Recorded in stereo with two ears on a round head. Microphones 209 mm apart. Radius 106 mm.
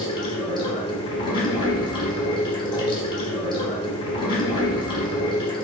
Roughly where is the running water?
Left.